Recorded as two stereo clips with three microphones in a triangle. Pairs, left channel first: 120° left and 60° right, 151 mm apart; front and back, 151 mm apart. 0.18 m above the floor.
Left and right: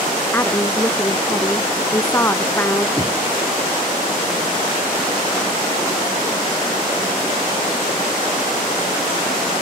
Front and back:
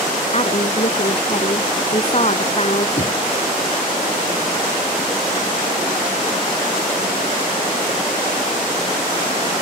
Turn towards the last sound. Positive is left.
turn(degrees=40)